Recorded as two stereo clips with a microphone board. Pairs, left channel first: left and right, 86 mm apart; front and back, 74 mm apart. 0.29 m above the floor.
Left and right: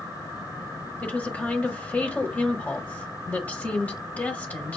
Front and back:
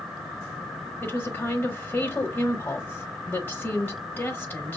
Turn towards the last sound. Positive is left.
turn(degrees=35)